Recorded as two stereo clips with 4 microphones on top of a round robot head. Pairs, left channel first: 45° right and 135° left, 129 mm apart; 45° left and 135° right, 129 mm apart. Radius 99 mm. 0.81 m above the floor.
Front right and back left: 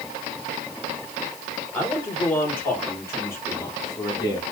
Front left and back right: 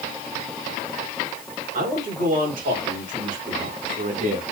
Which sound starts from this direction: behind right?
A man speaking, at 1.7 s.